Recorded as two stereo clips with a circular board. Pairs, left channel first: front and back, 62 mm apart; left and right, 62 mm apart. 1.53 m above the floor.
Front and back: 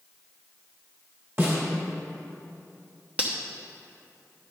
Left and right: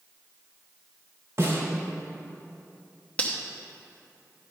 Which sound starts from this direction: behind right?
A snare drum, at 1.4 s.